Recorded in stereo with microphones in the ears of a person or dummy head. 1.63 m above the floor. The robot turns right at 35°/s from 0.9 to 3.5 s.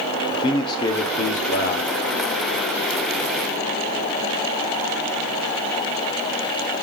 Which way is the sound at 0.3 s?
30° left.